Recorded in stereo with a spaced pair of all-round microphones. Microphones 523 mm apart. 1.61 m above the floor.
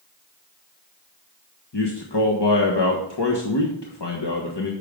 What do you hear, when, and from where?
1.7 s a man speaking: 50° left (ahead or behind), 1.3 m